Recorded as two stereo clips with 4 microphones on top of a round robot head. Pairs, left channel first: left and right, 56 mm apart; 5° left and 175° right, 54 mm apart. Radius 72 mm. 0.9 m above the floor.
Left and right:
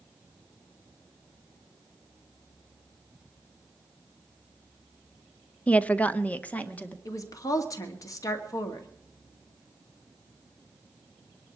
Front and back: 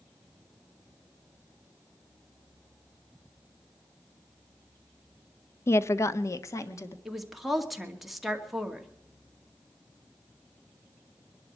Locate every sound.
5.7 s a woman speaking: 25° left, 0.6 m; by 7.0 s 30° left, 1.7 m
7.0 s a woman speaking: 95° left, 2.5 m